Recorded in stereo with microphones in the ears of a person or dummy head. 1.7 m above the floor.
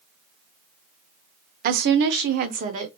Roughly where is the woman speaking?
Right.